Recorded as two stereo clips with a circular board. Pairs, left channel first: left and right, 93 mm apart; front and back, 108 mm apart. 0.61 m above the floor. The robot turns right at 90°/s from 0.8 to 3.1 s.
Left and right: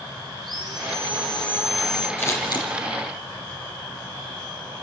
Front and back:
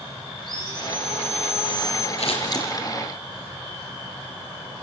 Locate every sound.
0.4 s sawing: 45° right, 7 m; by 2.1 s 70° left, 7 m
2.2 s scissors: 20° left, 3.5 m; by 2.7 s 65° left, 3.5 m